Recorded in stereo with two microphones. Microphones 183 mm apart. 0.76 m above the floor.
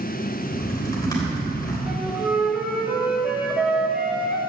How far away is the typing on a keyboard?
About 3 m.